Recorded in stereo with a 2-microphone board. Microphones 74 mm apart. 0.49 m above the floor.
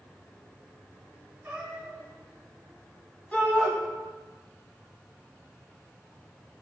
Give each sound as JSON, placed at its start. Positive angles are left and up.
{"t": 1.4, "sound": "a cat meowing", "side_deg": -20, "distance_m": 4.0}
{"t": 3.3, "sound": "a shout", "side_deg": 20, "distance_m": 4.0}